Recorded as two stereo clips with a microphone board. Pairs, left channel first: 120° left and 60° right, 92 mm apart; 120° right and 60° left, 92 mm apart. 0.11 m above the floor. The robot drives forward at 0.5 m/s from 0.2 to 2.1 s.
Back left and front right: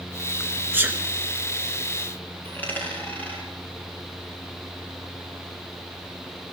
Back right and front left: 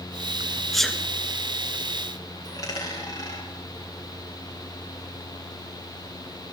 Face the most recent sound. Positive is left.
turn(degrees=-170)